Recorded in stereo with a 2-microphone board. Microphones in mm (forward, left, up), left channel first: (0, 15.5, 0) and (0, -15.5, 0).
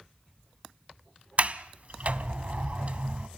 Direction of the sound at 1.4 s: 45° right (ahead or behind).